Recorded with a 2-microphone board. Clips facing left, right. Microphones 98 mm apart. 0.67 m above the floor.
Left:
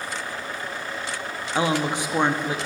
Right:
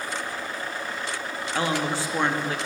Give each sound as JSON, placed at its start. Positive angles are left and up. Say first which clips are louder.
{"t": 1.6, "sound": "a woman speaking", "louder": "left 3 dB", "side_deg": 20, "distance_m": 0.5}